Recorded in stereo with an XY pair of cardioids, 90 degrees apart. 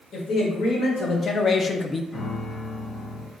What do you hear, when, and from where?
0.1 s a man speaking: 65° left, 1.9 m; by 2.0 s 20° left, 0.5 m
2.1 s a piano: 35° left, 1.1 m